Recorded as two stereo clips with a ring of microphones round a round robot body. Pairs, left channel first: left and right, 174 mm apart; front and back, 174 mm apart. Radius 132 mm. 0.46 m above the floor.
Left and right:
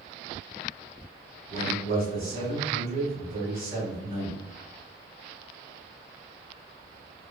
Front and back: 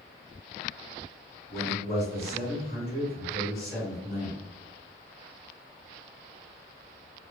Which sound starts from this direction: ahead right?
A man speaking, at 1.5 s.